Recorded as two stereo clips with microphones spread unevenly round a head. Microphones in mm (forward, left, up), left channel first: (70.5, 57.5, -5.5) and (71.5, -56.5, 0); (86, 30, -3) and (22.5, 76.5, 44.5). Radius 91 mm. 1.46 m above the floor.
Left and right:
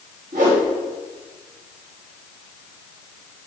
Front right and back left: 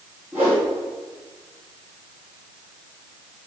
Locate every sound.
0.3 s a whoosh: 135° right, 3.5 m